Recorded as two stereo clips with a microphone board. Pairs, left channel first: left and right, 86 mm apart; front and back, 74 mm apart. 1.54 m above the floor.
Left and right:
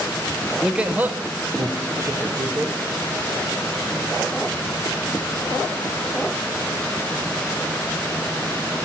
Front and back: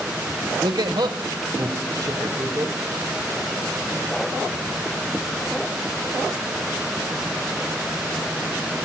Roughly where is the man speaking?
Behind.